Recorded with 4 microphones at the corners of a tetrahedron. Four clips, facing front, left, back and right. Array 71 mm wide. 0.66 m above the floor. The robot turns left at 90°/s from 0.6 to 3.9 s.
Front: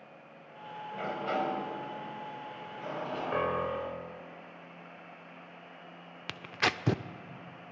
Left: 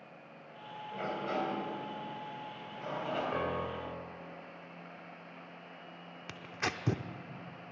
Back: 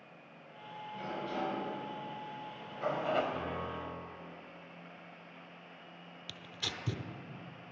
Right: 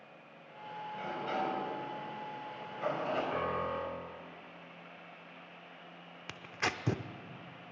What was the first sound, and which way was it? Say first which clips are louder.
A sliding door: left 2 dB, front 6 dB; 45° left.